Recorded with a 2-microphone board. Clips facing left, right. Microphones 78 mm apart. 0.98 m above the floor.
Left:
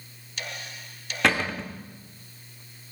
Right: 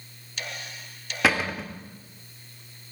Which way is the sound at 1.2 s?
5° right (ahead or behind).